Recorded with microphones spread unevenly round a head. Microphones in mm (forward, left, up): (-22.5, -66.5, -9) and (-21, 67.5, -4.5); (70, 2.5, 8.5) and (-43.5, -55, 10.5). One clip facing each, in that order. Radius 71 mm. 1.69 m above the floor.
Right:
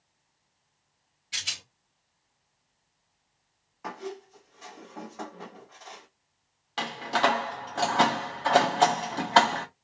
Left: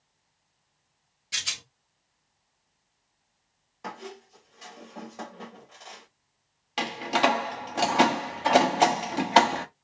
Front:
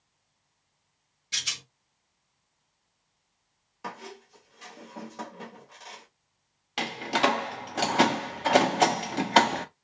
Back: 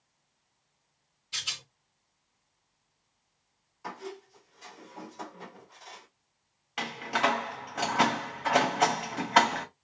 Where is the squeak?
35° left, 1.5 m.